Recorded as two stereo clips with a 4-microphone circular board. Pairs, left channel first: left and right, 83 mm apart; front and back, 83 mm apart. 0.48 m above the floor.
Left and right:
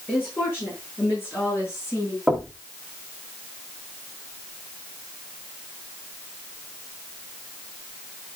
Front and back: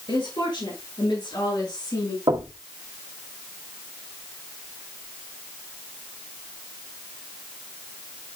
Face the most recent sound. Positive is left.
turn(degrees=-175)